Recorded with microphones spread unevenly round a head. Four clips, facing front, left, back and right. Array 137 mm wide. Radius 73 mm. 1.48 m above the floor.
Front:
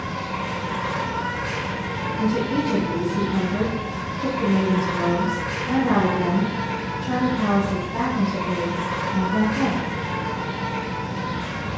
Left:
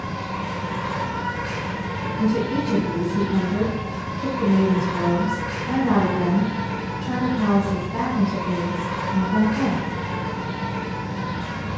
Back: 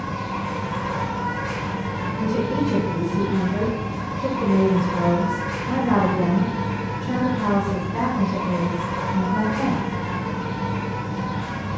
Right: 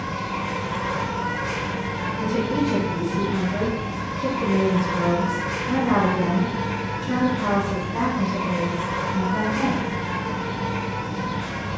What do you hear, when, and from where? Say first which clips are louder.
0.0 s an insect: right 1 dB, back 1 dB; 15° left, 1.3 m
2.2 s a woman speaking: left 1 dB, even; 100° left, 1.4 m